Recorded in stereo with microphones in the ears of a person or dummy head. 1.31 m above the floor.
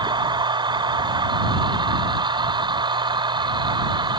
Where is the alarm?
I don't hear an alarm.